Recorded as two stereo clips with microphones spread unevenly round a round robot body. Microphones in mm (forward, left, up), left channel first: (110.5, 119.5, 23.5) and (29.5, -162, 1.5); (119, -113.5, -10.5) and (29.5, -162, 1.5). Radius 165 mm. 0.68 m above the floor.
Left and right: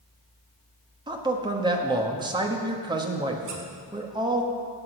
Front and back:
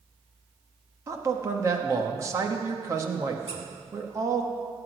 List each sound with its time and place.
1.1 s a man speaking: 135° right, 1.0 m
3.5 s a squeak: 135° right, 2.0 m